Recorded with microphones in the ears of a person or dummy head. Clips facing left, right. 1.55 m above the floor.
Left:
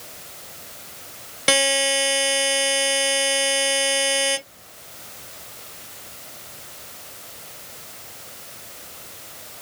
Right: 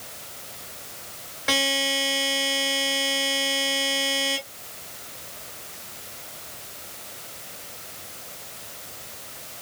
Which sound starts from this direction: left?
A buzzer, at 1.5 s.